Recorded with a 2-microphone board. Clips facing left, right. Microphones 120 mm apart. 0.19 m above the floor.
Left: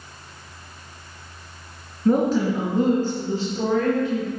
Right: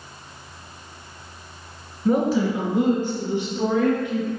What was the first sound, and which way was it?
A woman speaking, 10° right (ahead or behind).